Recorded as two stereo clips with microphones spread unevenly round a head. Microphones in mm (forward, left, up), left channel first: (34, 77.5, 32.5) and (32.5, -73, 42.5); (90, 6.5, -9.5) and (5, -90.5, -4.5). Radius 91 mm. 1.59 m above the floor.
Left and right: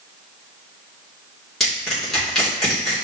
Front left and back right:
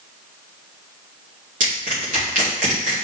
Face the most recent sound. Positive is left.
turn(degrees=175)